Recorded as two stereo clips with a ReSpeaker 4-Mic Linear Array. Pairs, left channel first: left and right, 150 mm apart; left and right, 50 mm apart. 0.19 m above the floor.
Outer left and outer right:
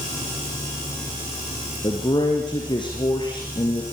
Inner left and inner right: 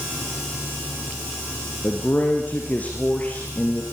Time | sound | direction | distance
1.8 | a man speaking | 30° left (ahead or behind) | 4.5 m